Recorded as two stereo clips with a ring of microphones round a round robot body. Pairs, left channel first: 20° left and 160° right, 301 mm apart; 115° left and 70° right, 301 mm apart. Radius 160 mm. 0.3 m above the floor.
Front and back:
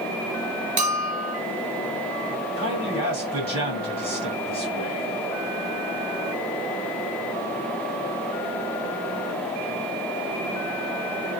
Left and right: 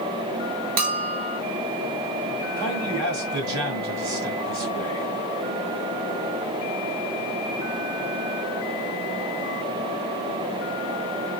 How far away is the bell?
About 0.7 m.